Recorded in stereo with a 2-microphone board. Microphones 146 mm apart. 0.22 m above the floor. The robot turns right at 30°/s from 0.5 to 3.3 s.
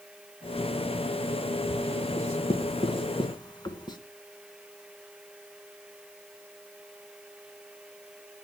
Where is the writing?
55° left (ahead or behind), 1.2 m; by 4.0 s 30° left (ahead or behind), 1.2 m.